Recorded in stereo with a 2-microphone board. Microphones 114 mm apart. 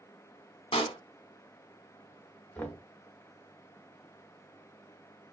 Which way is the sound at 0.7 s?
55° left (ahead or behind).